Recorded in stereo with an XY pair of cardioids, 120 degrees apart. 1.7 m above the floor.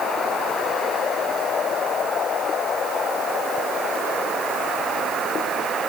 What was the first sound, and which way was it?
Only background noise.